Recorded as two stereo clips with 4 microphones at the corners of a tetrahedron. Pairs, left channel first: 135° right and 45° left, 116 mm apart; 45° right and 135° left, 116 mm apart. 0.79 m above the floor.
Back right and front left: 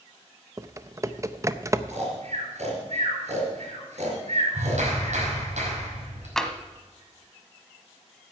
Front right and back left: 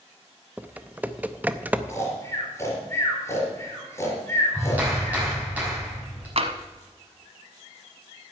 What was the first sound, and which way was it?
Typing on a keyboard, 75° left.